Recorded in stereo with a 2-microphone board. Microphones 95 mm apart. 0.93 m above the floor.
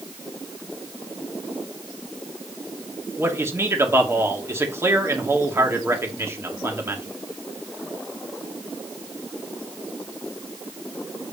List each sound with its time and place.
3.2 s a man speaking: 30° right (ahead or behind), 2.5 m